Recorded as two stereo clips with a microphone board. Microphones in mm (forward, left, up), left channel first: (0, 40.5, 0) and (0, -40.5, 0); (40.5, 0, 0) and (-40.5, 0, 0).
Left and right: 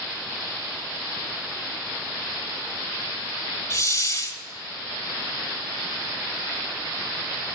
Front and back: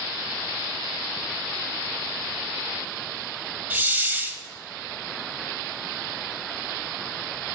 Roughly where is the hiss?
Behind left.